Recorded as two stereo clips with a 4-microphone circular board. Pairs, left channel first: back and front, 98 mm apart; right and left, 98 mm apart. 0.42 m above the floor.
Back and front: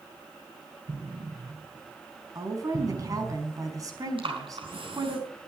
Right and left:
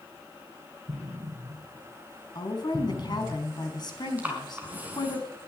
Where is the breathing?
20° left, 4.5 m.